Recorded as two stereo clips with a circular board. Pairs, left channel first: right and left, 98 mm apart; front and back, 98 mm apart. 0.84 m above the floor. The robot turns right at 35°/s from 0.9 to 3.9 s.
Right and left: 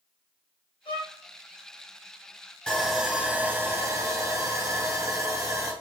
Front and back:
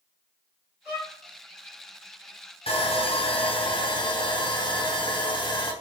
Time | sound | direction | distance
0.8 | a violin | 100° right | 4 m
2.7 | sawing | 15° right | 3 m